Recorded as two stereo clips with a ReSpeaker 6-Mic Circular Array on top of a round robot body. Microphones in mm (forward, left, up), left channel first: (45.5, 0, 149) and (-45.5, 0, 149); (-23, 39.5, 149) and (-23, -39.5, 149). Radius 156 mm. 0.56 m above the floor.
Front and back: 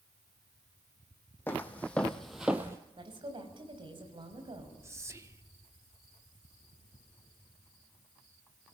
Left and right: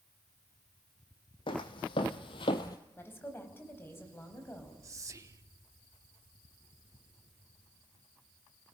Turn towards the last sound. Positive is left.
turn(degrees=-125)